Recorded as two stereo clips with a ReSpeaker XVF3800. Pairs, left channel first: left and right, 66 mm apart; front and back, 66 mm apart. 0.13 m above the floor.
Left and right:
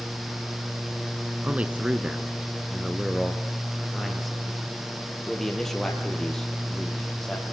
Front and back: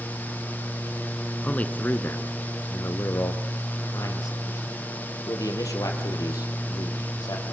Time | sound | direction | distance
1.4 | a man speaking | 50° right | 1.2 m